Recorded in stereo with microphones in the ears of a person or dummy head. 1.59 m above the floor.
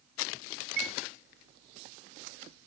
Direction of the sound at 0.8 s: 60° right (ahead or behind).